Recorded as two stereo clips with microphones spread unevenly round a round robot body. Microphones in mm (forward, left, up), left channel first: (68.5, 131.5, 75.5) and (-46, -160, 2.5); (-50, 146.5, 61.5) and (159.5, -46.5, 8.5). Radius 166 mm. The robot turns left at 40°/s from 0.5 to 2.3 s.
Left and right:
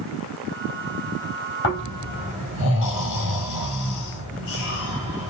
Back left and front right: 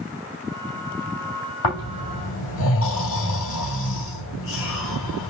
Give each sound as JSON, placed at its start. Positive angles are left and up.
{"t": 1.6, "sound": "snoring", "azimuth_deg": 125, "distance_m": 3.0}